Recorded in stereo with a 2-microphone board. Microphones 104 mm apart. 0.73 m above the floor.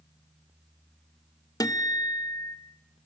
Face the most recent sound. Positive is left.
turn(degrees=35)  # may be behind; listen again after turning